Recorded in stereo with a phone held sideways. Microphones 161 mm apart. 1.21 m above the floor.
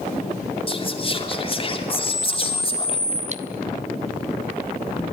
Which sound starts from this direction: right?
Cutlery clinking, at 3.3 s.